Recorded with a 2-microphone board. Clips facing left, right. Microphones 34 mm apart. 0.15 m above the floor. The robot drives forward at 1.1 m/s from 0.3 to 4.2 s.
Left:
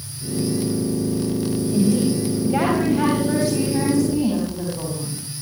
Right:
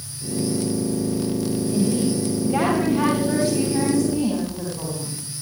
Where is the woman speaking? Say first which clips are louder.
Left 3 dB; 15° right (ahead or behind), 9.5 m; by 5.2 s 10° right (ahead or behind), 12 m.